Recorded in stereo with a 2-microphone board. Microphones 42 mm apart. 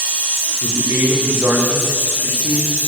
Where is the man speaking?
55° right (ahead or behind), 9 m.